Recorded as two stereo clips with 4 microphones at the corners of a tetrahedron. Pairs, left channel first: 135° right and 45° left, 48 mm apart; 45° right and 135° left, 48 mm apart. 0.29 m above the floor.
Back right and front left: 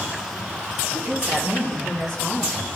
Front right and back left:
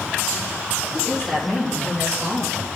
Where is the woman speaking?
50° left, 2.5 m; by 2.6 s 85° left, 4 m.